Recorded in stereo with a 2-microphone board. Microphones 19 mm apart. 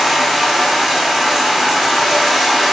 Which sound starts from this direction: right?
Running water, at 0.0 s.